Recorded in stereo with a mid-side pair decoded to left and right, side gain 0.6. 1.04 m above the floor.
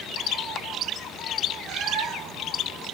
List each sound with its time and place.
1.7 s a cat meowing: 65° right, 1.0 m